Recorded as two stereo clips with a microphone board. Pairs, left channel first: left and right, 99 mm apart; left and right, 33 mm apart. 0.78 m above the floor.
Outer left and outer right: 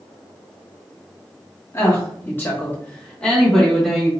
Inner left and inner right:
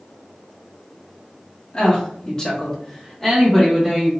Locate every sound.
1.7 s a woman speaking: 25° left (ahead or behind), 1.0 m; by 4.1 s centre (ahead or behind), 1.1 m